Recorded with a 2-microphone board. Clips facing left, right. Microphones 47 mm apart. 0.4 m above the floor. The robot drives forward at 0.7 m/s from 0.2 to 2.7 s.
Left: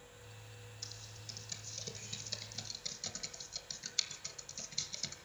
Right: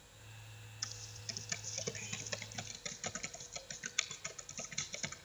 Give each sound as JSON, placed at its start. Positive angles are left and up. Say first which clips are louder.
{"t": 0.8, "sound": "typing on a keyboard", "louder": "right 7 dB", "side_deg": -50, "distance_m": 1.2}